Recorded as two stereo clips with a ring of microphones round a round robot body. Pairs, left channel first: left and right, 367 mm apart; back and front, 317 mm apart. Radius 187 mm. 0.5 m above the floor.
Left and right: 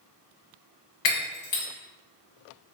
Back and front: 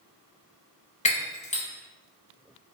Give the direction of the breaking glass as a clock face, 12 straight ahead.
8 o'clock.